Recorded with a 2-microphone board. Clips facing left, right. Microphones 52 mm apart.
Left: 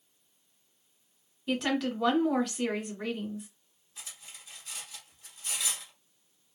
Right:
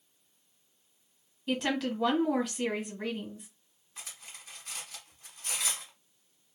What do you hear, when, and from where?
1.5 s a woman speaking: centre (ahead or behind), 1.4 m
4.0 s cutlery clinking: 50° right (ahead or behind), 1.0 m